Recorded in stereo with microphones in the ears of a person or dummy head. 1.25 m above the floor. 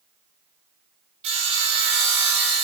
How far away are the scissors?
I don't hear scissors.